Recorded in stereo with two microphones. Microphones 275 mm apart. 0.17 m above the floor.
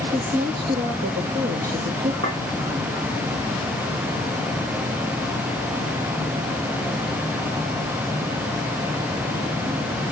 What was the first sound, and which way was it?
A woman speaking, 30° right (ahead or behind).